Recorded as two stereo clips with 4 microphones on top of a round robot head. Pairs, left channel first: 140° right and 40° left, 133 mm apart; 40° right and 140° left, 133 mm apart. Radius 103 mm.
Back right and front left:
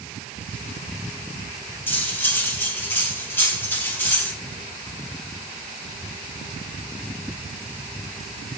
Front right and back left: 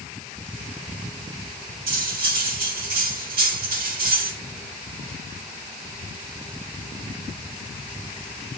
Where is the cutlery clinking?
145° left, 3 m.